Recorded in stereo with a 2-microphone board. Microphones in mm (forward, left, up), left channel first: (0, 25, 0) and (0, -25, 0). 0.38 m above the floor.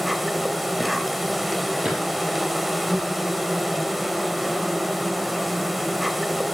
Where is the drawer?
15° right (ahead or behind), 3.5 m.